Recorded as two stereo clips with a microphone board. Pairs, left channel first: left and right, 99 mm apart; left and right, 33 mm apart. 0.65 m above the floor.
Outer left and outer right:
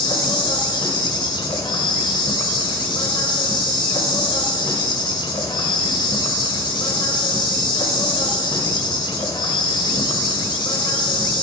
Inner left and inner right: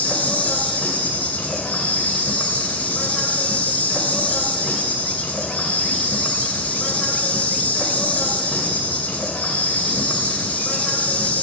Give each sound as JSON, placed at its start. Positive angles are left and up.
{"t": 0.0, "sound": "an insect", "side_deg": 55, "distance_m": 2.5}